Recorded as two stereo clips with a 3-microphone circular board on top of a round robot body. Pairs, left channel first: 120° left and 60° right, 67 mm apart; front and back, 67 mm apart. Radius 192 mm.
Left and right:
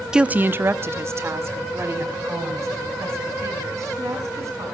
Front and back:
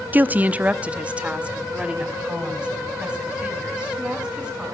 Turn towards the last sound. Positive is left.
turn(degrees=-105)